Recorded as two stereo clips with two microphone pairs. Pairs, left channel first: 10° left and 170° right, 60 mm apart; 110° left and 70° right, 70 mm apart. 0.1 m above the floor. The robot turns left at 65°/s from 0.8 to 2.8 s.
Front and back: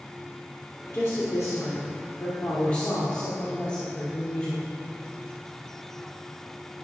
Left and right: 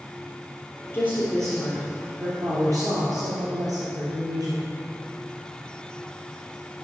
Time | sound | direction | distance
0.9 | a woman speaking | 60° left | 2.5 m